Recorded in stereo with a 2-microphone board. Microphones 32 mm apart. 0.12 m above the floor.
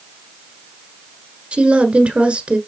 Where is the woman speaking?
35° right (ahead or behind), 1.6 m.